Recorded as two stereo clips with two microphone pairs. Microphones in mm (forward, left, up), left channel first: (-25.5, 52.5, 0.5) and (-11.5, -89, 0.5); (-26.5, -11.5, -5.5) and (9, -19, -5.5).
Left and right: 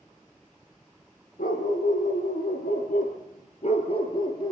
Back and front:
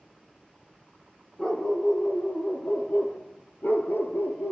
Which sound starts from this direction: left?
A dog barking, at 1.4 s.